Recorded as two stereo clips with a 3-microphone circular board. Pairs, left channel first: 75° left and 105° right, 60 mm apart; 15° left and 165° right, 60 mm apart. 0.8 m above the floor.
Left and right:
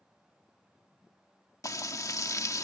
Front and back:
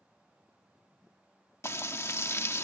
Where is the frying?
55° left.